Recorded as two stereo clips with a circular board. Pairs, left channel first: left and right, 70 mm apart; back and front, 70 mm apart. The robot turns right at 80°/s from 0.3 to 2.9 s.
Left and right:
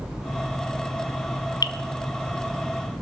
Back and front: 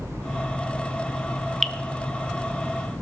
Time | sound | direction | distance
1.6 | dripping | 90° left | 0.7 m